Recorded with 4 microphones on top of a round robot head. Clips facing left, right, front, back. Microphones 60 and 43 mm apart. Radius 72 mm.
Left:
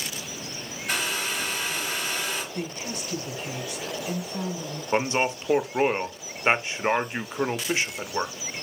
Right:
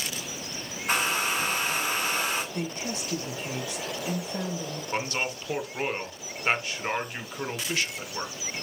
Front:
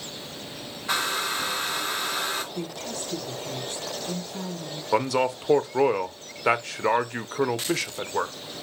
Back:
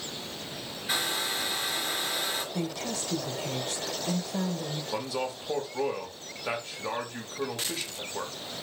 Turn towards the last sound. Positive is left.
turn(degrees=20)